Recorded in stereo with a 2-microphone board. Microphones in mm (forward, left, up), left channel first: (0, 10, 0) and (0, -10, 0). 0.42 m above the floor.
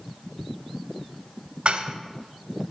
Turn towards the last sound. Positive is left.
turn(degrees=-50)  # may be behind; listen again after turning